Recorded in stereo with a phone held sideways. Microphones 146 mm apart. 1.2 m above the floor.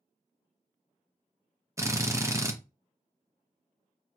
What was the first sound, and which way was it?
A drill, 20° right (ahead or behind).